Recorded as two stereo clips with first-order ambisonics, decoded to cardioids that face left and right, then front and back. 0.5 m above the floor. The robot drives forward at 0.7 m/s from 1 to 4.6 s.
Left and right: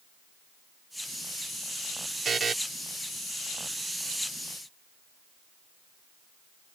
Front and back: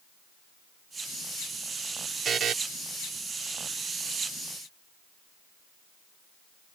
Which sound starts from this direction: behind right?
A buzzer, at 2.2 s.